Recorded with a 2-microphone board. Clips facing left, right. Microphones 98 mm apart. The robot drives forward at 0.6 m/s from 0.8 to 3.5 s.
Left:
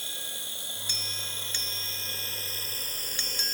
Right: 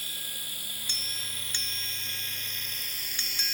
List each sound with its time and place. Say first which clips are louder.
0.0 s running water: left 2 dB; 25° left (ahead or behind); by 3.5 s 45° left (ahead or behind)